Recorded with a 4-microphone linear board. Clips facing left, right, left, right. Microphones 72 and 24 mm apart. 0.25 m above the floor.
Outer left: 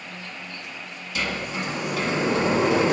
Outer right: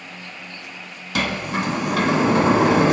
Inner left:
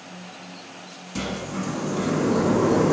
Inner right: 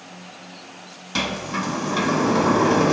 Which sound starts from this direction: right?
A sliding door, at 1.1 s.